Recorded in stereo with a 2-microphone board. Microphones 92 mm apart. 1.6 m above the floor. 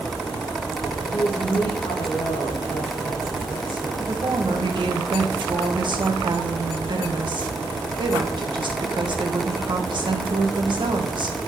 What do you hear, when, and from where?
1.1 s a woman speaking: 85° left, 2.5 m
4.0 s a woman speaking: 55° right (ahead or behind), 1.4 m